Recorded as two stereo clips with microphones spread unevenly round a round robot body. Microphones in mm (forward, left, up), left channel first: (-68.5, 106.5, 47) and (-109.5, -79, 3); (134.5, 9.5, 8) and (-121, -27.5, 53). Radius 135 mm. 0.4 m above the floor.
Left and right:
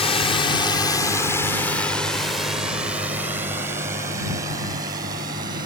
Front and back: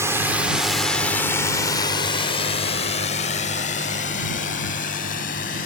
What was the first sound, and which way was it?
A drone, 100° left.